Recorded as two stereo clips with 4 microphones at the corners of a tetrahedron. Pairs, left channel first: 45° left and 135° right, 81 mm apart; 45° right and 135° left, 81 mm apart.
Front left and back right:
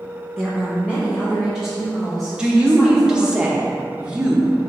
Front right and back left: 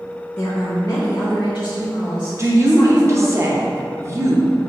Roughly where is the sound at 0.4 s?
Ahead right.